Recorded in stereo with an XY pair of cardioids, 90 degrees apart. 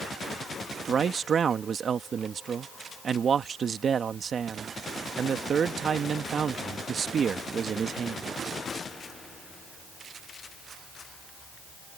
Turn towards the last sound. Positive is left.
turn(degrees=-50)